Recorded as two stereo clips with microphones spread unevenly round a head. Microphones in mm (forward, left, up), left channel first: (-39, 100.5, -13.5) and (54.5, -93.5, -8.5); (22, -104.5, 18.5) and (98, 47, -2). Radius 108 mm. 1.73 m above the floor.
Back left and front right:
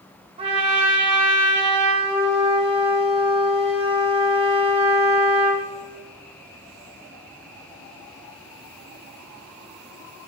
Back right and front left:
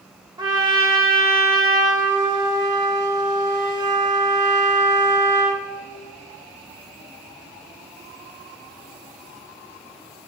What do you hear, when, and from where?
0.4 s a trumpet: straight ahead, 1.7 m